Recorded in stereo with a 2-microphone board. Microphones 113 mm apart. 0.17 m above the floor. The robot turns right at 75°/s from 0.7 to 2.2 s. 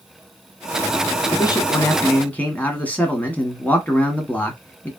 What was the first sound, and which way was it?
A man speaking, 90° left.